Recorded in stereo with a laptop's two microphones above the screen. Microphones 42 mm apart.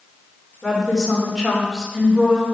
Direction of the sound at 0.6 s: 5° right (ahead or behind).